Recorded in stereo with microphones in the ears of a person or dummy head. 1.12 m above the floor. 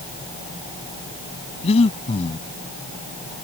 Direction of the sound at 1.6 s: 35° left (ahead or behind).